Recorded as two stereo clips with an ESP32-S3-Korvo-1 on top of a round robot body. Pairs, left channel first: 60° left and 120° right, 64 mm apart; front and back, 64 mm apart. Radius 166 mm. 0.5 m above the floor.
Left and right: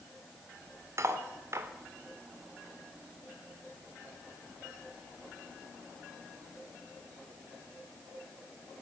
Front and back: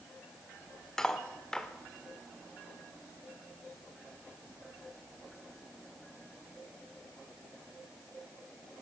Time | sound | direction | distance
1.0 | cutlery clinking | 80° right | 1.2 m